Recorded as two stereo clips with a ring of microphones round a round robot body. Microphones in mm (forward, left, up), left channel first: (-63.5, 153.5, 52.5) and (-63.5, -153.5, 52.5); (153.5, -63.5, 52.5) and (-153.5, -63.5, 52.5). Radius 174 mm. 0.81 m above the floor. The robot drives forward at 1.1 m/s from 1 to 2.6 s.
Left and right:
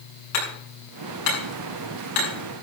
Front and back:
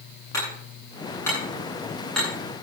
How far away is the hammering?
About 10 m.